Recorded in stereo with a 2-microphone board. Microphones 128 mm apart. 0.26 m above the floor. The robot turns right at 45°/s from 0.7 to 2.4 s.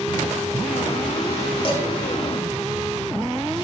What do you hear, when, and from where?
1.6 s dishes clattering: 40° left (ahead or behind), 1.0 m; by 1.8 s 45° left (ahead or behind), 1.0 m